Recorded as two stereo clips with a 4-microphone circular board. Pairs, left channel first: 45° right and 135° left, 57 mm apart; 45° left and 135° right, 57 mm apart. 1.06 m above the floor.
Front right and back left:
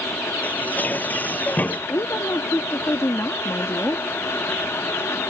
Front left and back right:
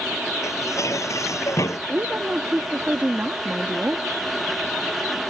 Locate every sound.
0.4 s dishes clattering: 15° left
1.9 s a woman speaking: 80° right